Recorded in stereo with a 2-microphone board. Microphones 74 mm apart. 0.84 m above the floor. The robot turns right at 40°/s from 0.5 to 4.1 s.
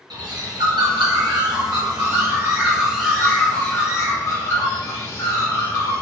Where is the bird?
105° right, 0.7 m; by 6.0 s 40° left, 0.7 m.